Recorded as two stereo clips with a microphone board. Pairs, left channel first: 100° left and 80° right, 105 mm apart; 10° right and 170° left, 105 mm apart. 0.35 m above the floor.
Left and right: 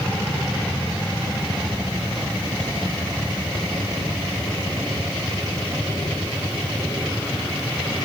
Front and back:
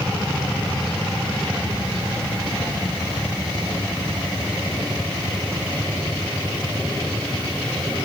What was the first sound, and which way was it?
Only background noise.